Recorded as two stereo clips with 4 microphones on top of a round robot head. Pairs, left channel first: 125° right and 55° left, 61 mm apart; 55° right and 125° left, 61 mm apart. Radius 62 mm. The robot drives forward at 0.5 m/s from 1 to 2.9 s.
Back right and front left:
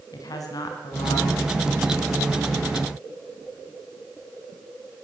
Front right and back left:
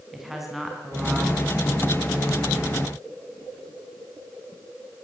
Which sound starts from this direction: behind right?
A woman speaking, at 0.1 s.